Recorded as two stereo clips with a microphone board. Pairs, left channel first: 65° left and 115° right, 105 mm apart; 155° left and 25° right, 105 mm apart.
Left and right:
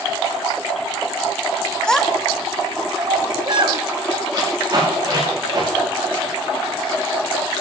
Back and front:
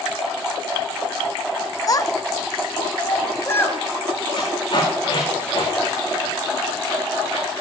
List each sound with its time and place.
1.9 s a child speaking: 145° left, 0.7 m; by 3.8 s 135° right, 1.2 m
4.3 s tape being pulled: 165° right, 7 m